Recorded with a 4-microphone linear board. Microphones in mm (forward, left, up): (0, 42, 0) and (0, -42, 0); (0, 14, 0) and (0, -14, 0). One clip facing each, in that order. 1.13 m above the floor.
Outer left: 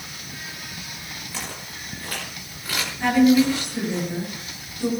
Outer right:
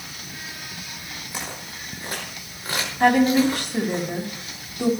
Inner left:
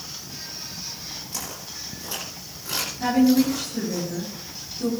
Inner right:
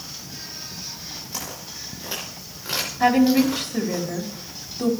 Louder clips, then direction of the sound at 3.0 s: Even, inner right 2 dB; 65° right (ahead or behind).